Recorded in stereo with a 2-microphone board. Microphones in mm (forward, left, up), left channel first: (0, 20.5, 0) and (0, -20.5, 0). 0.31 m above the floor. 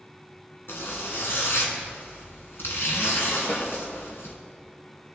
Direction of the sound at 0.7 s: 65° left (ahead or behind).